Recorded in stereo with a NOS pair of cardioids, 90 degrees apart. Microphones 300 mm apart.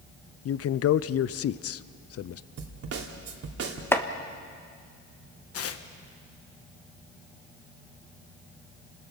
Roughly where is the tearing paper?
Ahead left.